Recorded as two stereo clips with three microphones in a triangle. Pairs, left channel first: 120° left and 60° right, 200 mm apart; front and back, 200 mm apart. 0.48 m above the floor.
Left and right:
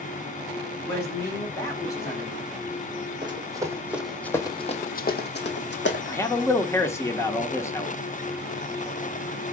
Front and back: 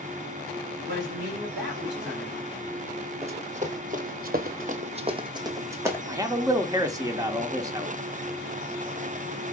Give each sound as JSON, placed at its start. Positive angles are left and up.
{"t": 0.8, "sound": "a man speaking", "azimuth_deg": -170, "distance_m": 3.0}
{"t": 3.2, "sound": "running footsteps", "azimuth_deg": -125, "distance_m": 1.2}
{"t": 6.1, "sound": "a man speaking", "azimuth_deg": 160, "distance_m": 0.7}